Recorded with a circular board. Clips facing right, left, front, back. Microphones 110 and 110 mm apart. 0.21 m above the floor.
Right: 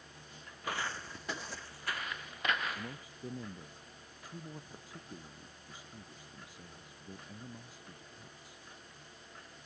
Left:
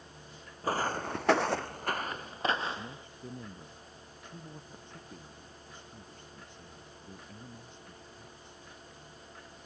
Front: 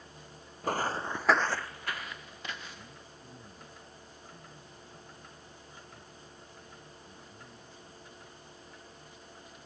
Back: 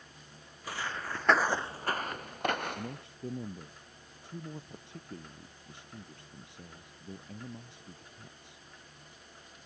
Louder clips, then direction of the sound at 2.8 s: Left 1 dB, back 9 dB; 175° right.